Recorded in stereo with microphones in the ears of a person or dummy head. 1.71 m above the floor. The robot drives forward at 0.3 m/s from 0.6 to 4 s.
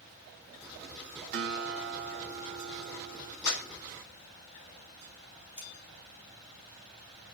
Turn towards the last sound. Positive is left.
turn(degrees=65)  # may be behind; listen again after turning